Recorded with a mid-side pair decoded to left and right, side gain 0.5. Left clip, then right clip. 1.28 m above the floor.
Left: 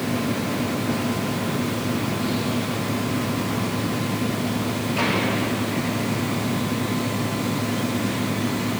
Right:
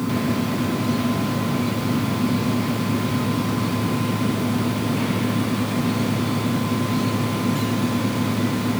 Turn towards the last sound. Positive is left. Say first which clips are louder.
# right 1 dB
turn(degrees=-30)